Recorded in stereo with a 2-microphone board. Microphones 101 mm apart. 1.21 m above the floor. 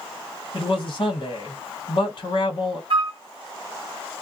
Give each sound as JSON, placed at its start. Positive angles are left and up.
{"t": 0.5, "sound": "a man speaking", "side_deg": 55, "distance_m": 1.4}
{"t": 2.9, "sound": "a flute", "side_deg": -60, "distance_m": 0.9}